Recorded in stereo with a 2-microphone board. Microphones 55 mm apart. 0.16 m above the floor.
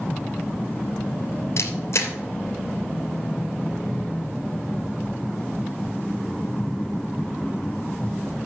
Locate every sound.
1.6 s a camera shutter: 65° left (ahead or behind), 3 m